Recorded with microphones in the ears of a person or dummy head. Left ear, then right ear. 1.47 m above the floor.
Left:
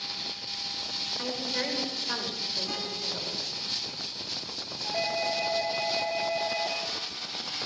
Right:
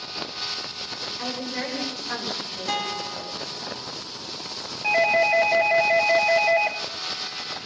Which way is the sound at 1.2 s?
5° left (ahead or behind).